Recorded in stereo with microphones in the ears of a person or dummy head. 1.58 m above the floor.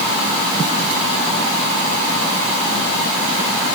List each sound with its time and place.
Only background noise.